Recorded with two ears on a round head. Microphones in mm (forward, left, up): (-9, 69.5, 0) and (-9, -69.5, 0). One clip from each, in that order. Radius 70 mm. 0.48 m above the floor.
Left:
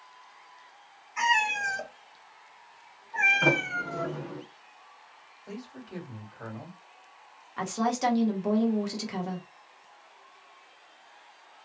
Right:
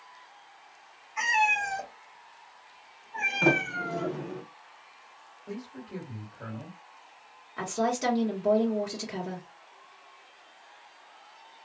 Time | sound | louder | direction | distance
1.2 | a cat meowing | even | 35° left (ahead or behind) | 1.2 m
3.4 | a sliding door | even | 5° right (ahead or behind) | 1.3 m
5.5 | a man speaking | right 2 dB | 45° left (ahead or behind) | 1.7 m
7.6 | a woman speaking | even | 20° left (ahead or behind) | 0.9 m